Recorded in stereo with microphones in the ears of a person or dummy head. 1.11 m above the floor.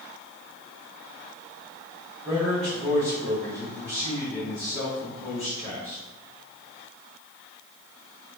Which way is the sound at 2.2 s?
10° right (ahead or behind).